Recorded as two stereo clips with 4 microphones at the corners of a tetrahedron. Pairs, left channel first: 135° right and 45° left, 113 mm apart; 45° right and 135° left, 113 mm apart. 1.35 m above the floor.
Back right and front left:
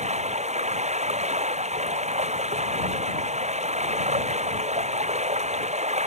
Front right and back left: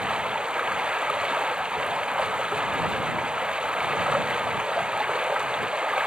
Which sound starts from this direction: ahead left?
Running water, at 0.0 s.